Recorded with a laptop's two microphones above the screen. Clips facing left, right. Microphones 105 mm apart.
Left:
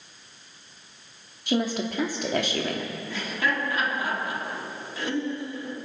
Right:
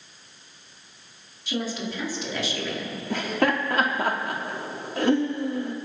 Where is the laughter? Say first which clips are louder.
Right 6 dB; 55° right (ahead or behind), 2.5 m.